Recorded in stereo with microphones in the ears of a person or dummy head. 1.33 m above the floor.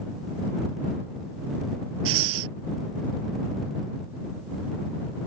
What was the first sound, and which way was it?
Breathing, 90° right.